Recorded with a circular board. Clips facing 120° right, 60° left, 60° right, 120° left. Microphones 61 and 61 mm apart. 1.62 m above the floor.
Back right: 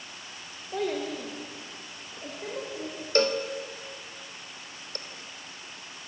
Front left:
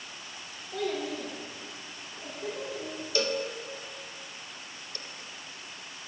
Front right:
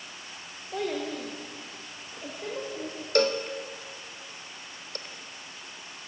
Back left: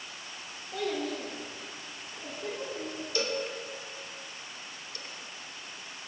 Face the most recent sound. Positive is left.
turn(degrees=-85)